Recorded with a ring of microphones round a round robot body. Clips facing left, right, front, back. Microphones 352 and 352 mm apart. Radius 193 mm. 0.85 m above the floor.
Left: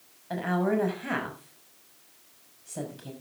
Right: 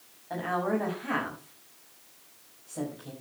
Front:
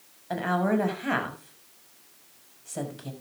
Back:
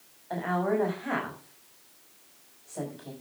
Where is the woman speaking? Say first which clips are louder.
Left 3 dB, front 2 dB; 40° left, 6 m.